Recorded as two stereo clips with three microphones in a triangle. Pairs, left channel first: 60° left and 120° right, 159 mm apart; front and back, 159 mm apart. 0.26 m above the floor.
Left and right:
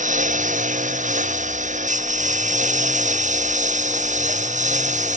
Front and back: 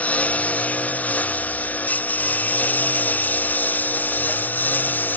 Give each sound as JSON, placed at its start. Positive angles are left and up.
{"t": 0.0, "sound": "a lawn mower", "azimuth_deg": -80}